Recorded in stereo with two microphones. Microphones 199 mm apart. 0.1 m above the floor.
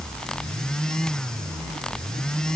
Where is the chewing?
No chewing in this recording.